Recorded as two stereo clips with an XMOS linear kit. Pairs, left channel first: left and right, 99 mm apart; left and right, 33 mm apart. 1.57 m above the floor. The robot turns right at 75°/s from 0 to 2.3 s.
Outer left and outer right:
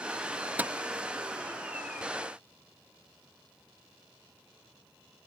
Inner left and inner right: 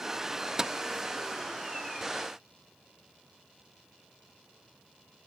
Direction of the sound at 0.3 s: Centre (ahead or behind).